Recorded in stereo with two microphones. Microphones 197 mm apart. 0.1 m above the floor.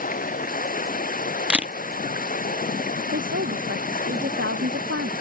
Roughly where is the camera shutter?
Centre.